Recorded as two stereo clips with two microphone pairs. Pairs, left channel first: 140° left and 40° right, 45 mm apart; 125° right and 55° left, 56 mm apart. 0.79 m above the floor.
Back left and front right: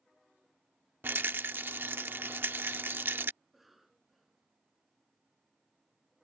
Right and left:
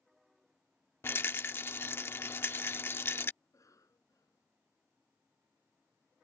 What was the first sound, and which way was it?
A rattle, 80° right.